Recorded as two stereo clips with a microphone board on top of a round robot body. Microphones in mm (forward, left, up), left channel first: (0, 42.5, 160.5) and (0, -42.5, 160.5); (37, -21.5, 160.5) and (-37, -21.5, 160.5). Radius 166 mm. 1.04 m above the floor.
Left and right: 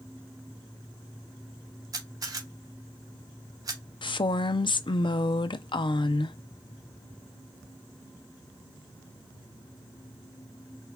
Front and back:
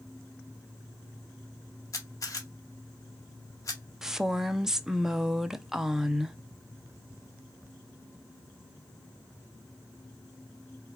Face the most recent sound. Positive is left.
turn(degrees=95)